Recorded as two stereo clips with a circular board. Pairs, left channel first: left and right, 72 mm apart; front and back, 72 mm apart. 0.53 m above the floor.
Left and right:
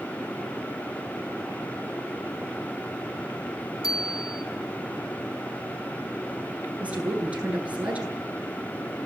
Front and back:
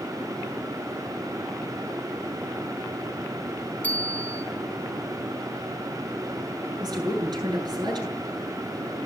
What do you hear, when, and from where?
3.8 s a bicycle bell: 65° left, 3.5 m
6.8 s a woman speaking: 160° right, 9.5 m